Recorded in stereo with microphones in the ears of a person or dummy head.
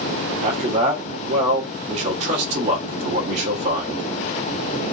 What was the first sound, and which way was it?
A man speaking, 35° right (ahead or behind).